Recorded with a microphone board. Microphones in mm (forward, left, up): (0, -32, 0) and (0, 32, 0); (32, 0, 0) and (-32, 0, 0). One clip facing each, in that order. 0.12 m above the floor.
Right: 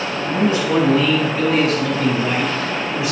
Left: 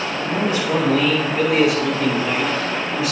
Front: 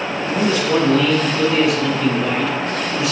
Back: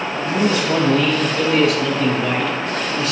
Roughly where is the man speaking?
Behind left.